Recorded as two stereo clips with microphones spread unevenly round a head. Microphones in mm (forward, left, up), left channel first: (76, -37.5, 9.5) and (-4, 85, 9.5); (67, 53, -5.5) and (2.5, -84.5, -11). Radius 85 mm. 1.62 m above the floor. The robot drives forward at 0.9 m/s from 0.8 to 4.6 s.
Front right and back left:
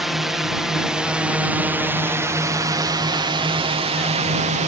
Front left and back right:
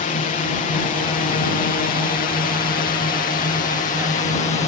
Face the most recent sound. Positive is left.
turn(degrees=105)